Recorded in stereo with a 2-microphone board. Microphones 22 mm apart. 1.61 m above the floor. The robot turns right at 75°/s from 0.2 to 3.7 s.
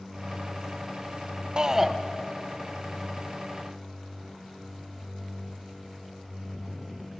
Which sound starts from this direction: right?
A shout, at 1.6 s.